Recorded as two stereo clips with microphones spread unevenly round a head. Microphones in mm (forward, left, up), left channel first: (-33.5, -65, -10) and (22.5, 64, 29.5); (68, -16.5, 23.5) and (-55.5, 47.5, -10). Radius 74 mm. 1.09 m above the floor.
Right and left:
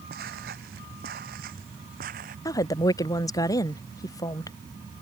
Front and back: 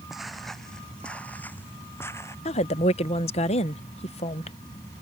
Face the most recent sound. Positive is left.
turn(degrees=-75)